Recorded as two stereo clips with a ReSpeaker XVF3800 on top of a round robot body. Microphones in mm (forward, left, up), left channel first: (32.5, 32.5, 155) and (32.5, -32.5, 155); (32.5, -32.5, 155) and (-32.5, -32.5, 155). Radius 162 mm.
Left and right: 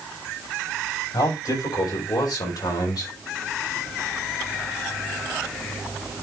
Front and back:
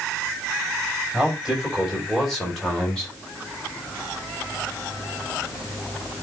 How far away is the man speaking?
About 5.5 m.